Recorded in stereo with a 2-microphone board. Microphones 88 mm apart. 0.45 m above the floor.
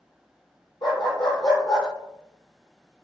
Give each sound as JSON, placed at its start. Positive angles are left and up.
{"t": 0.8, "sound": "a dog barking", "side_deg": 60, "distance_m": 5.5}